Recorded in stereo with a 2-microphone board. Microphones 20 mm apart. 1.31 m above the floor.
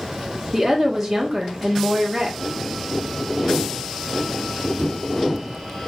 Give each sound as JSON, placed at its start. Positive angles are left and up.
{"t": 0.5, "sound": "a woman speaking", "side_deg": -10, "distance_m": 0.6}